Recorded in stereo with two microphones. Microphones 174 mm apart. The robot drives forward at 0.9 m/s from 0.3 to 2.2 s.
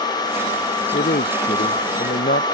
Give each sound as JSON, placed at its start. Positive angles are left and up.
{"t": 0.9, "sound": "a man speaking", "side_deg": 65}